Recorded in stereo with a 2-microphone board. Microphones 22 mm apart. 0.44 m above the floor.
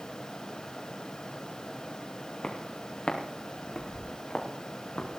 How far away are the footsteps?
About 4.5 m.